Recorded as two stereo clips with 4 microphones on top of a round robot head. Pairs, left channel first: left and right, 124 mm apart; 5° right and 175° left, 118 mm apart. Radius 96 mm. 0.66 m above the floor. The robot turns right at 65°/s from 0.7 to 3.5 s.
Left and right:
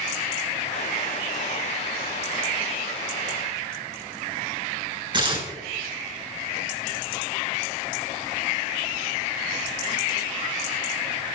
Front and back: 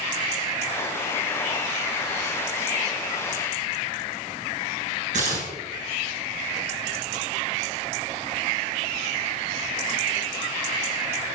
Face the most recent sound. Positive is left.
turn(degrees=-140)